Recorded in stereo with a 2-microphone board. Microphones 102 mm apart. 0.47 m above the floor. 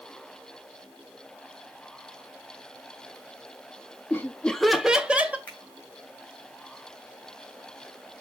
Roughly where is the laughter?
Left.